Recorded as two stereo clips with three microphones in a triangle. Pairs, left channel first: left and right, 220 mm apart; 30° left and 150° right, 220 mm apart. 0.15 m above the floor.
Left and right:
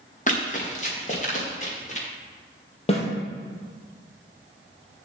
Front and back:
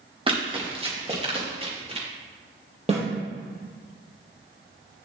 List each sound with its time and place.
0.3 s running footsteps: 145° left, 3 m; by 2.1 s 150° left, 4.5 m
2.9 s a snare drum: 150° left, 3.5 m